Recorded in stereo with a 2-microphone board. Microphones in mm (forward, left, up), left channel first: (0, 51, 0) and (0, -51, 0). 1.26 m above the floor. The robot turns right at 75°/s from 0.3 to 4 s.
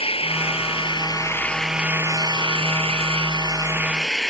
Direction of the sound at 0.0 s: 80° left.